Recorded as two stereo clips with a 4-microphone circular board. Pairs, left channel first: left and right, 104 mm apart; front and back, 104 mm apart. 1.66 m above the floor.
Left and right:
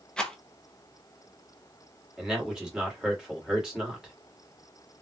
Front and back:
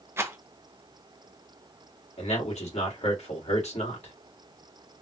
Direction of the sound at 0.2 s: 160° left.